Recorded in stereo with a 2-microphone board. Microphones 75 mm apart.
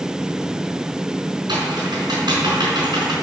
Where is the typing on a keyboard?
75° right (ahead or behind), 5 m.